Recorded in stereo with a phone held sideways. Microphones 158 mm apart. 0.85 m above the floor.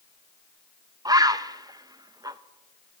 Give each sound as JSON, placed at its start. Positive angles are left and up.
{"t": 1.1, "sound": "a bird", "side_deg": -25, "distance_m": 0.5}